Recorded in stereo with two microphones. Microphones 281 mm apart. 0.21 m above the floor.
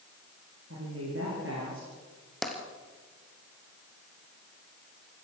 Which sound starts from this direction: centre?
Tapping, at 2.4 s.